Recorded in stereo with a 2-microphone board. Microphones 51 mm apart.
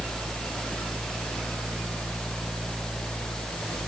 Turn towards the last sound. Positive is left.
No sound to turn to.